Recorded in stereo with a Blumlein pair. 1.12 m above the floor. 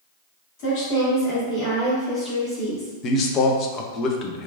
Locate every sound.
0.6 s a woman speaking: 45° left, 1.9 m; by 2.9 s 5° left, 2.5 m
3.0 s a man speaking: 30° left, 0.6 m